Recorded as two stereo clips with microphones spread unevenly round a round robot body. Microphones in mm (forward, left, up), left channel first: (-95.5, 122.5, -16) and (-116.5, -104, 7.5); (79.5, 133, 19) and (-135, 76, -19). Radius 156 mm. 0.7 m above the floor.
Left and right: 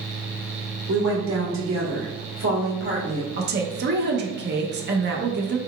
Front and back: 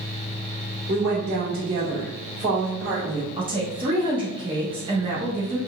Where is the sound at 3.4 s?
120° right, 0.7 m.